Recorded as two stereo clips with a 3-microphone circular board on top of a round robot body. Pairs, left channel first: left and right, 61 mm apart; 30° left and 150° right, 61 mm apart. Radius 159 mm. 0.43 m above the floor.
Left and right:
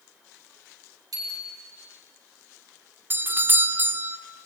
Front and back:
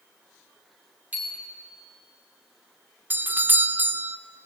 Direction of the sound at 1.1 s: 85° right.